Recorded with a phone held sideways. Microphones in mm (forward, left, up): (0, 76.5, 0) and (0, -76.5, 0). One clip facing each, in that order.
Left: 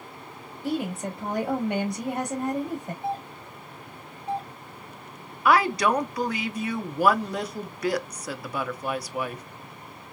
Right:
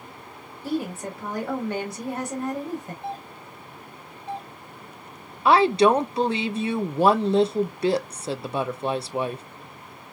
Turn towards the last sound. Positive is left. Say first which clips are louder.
# right 4 dB
turn(degrees=-25)  # may be behind; listen again after turning